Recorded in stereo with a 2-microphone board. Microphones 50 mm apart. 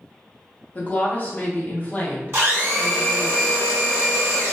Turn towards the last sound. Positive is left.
turn(degrees=-50)  # may be behind; listen again after turning